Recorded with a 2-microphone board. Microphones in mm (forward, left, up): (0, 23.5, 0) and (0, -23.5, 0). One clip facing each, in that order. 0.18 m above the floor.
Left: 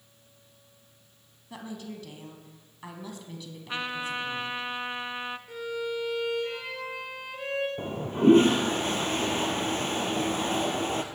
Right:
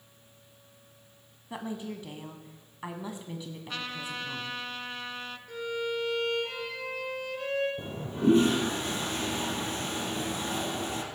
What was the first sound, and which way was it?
A woman speaking, 25° right (ahead or behind).